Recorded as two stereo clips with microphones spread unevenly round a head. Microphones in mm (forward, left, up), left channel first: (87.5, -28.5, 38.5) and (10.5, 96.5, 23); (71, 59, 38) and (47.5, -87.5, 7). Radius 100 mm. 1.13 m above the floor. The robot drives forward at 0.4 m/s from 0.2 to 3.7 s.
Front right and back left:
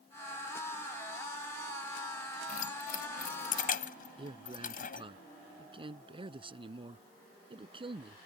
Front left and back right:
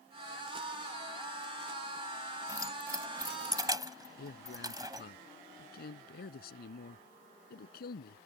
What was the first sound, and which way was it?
Keys jangling, 30° right.